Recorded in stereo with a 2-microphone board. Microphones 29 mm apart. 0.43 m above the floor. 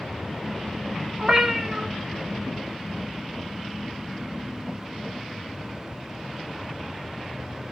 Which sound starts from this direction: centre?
A cat meowing, at 1.2 s.